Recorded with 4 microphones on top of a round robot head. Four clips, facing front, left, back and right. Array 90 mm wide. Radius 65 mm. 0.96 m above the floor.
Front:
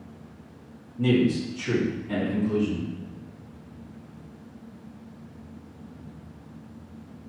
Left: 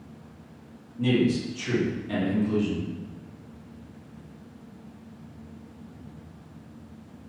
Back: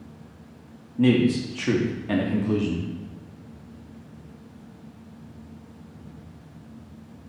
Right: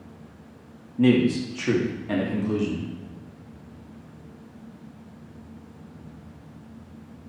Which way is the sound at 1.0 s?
130° right.